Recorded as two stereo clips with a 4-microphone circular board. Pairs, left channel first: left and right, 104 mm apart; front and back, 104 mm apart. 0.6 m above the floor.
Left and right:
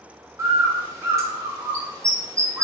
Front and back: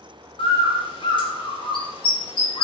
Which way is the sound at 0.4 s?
30° right.